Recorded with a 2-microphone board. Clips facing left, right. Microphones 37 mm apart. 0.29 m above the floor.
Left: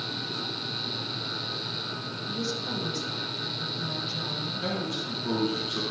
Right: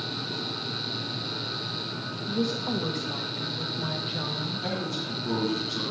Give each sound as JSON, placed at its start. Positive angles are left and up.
{"t": 2.3, "sound": "a woman speaking", "side_deg": -30, "distance_m": 1.1}
{"t": 4.6, "sound": "a man speaking", "side_deg": 50, "distance_m": 4.0}